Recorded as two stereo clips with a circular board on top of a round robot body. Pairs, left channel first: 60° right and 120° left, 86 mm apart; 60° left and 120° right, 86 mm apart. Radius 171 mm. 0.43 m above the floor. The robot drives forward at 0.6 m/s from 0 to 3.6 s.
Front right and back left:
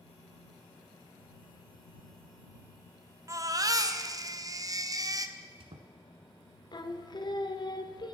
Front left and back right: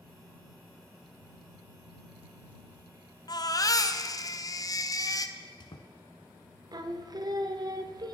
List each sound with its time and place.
3.3 s a baby crying: 80° left, 1.2 m; by 5.3 s 90° left, 1.2 m
5.4 s a squeak: 100° left, 1.0 m
6.7 s singing: 85° right, 1.3 m